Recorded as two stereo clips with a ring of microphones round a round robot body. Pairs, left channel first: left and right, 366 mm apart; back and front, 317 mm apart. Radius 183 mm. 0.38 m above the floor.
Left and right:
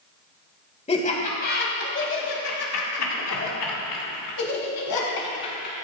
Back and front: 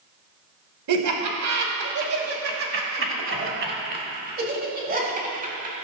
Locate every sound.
0.9 s laughter: 20° left, 2.5 m; by 5.8 s 65° left, 4.5 m